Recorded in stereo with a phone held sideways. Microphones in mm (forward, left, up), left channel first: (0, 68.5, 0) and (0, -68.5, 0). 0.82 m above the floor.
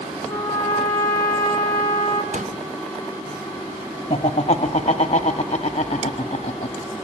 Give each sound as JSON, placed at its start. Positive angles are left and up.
{"t": 0.3, "sound": "a trumpet", "side_deg": 15, "distance_m": 4.0}
{"t": 2.3, "sound": "a pop", "side_deg": -60, "distance_m": 1.3}
{"t": 4.1, "sound": "laughter", "side_deg": 45, "distance_m": 1.6}